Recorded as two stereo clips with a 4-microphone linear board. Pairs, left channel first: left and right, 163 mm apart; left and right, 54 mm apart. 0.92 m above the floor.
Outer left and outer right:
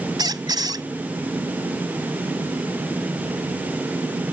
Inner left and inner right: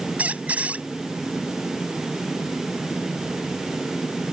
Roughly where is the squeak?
Right.